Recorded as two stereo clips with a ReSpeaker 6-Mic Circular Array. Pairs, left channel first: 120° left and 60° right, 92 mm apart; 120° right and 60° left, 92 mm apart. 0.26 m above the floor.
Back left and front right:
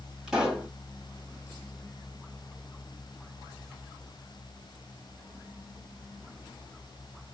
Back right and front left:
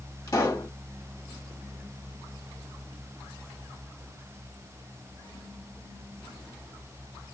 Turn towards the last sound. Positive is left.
turn(degrees=-140)